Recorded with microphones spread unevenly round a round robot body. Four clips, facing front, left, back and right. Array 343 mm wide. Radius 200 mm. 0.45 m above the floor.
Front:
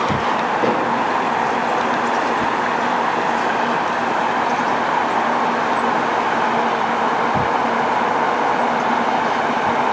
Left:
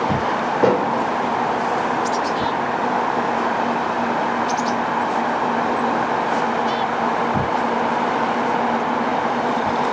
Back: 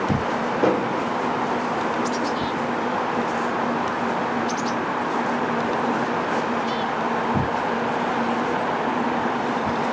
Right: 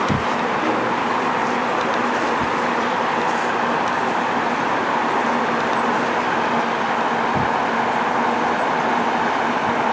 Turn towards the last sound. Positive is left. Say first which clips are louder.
# left 3 dB, front 2 dB
turn(degrees=105)